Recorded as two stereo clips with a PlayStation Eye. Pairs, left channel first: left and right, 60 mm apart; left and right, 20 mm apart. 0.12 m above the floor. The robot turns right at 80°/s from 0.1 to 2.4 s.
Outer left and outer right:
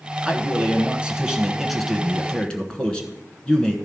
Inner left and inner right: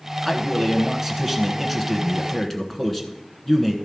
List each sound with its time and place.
0.2 s a man speaking: 15° right (ahead or behind), 1.0 m; by 3.8 s 15° left (ahead or behind), 1.0 m